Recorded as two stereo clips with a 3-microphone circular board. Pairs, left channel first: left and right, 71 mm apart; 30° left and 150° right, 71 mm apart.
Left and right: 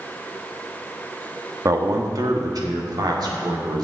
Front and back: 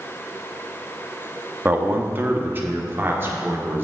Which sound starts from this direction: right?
A man speaking, at 1.6 s.